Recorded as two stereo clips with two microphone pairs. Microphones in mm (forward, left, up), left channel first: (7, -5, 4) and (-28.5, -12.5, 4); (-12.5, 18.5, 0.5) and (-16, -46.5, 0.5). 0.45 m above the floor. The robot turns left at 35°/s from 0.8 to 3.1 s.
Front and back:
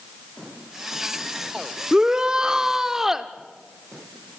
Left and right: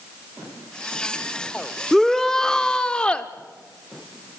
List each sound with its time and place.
1.9 s a shout: 175° left, 0.8 m; by 3.3 s 135° left, 0.8 m